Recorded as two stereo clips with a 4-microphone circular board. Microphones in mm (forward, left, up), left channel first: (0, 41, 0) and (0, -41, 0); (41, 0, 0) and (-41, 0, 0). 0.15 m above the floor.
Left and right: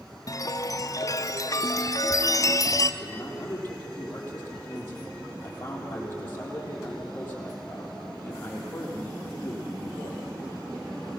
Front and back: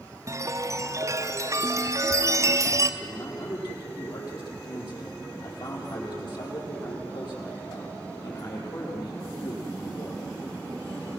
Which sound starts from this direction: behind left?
A chime, at 0.3 s.